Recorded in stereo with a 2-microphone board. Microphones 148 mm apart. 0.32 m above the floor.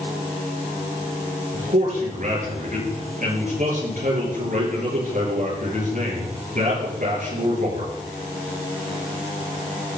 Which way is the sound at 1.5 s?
60° right (ahead or behind).